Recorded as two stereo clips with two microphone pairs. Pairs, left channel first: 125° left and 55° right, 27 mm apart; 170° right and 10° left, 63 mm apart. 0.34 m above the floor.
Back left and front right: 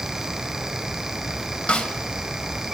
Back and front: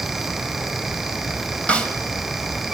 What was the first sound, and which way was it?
A snare drum, 125° left.